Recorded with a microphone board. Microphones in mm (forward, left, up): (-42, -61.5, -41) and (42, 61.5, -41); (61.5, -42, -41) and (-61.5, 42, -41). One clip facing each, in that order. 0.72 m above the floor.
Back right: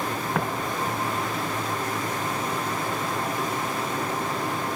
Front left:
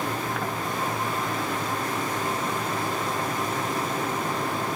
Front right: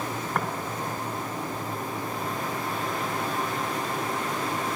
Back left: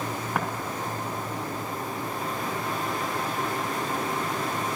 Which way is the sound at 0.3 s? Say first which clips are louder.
Back right 2 dB, even; 135° right.